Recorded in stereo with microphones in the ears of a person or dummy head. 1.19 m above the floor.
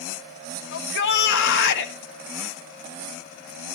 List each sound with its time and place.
0.7 s a shout: 70° left (ahead or behind), 1.3 m